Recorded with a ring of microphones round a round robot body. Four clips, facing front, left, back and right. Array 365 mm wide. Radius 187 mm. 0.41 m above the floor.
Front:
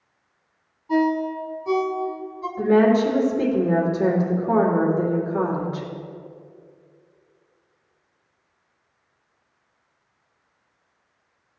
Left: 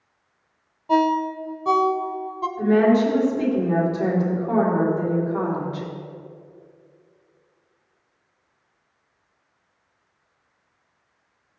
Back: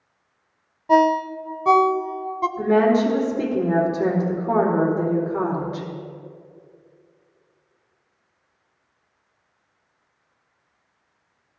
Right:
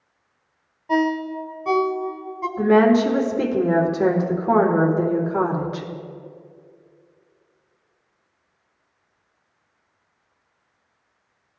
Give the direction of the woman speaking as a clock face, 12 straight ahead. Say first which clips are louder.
Right 2 dB, front 1 dB; 3 o'clock.